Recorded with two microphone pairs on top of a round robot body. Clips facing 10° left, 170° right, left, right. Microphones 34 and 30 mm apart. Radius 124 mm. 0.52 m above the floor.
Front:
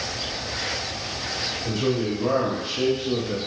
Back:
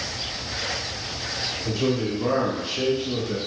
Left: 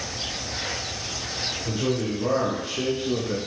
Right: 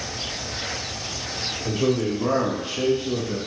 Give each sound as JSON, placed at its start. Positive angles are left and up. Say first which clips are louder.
{"t": 1.6, "sound": "a man speaking", "louder": "even, right 5 dB", "azimuth_deg": -95, "distance_m": 1.1}